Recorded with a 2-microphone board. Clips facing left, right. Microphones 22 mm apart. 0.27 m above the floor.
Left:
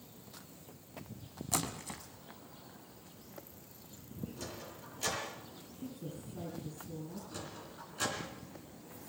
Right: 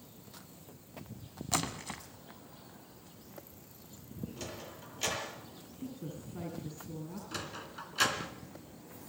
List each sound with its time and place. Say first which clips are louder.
1.5 s a splash: right 3 dB; 25° right (ahead or behind), 1.4 m
4.4 s a sliding door: right 1 dB; 35° right (ahead or behind), 7 m
5.8 s a woman speaking: right 2 dB; 35° right (ahead or behind), 5.5 m
7.3 s a sliding door: right 4 dB; 65° right (ahead or behind), 2.5 m